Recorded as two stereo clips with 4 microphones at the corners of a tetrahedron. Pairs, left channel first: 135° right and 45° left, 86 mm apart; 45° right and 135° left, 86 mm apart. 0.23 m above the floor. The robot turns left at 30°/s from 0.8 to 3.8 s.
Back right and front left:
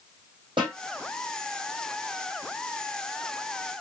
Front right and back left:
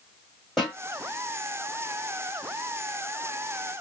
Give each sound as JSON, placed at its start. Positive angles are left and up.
{"t": 0.6, "sound": "a snare drum", "azimuth_deg": 40, "distance_m": 2.0}